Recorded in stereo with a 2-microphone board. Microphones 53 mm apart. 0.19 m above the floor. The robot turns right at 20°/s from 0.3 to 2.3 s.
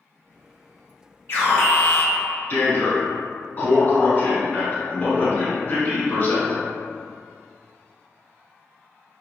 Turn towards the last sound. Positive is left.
turn(degrees=40)  # may be behind; listen again after turning